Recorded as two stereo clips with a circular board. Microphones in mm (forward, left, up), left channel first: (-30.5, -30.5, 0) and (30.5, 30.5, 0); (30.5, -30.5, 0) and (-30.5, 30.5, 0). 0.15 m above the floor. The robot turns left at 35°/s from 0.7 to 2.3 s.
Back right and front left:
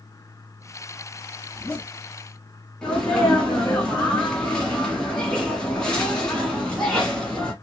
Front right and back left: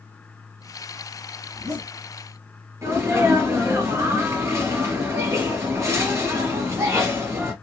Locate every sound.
1.5 s a zipper: 160° left, 1.7 m; by 1.9 s 145° left, 1.7 m
2.8 s a sneeze: 150° left, 1.4 m